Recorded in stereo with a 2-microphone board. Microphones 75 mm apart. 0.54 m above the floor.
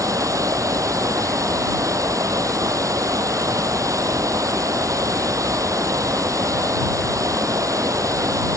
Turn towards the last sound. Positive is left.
turn(degrees=-45)  # may be behind; listen again after turning